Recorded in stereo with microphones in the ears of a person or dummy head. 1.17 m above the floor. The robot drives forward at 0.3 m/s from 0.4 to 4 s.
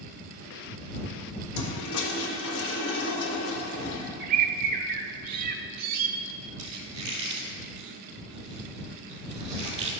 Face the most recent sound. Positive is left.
turn(degrees=-25)  # may be behind; listen again after turning